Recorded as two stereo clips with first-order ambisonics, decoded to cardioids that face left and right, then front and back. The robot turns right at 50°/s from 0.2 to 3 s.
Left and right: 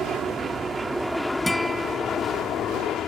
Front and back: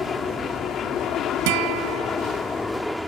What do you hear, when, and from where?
0.0 s an aircraft: 50° right; by 3.1 s 90° left
1.5 s a guitar: 175° left; by 2.2 s 145° right